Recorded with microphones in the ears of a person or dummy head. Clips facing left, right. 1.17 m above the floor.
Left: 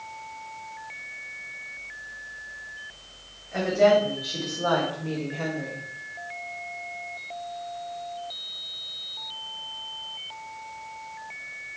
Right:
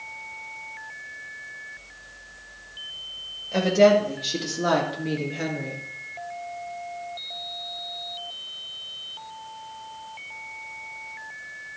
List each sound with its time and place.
3.5 s a woman speaking: 50° right (ahead or behind), 2 m; by 5.8 s 10° right (ahead or behind), 1.7 m